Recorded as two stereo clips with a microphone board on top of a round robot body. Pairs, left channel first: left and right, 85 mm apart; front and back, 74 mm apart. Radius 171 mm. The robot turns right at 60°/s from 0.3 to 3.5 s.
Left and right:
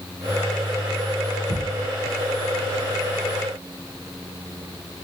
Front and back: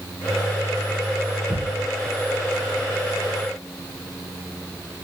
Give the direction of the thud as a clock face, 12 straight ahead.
4 o'clock.